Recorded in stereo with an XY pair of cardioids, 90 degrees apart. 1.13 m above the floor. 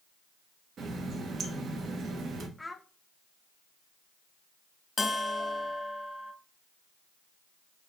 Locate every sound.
0.8 s a running tap: 65° right, 0.9 m
2.6 s a child speaking: 15° left, 0.6 m
5.0 s a bell: 35° left, 0.6 m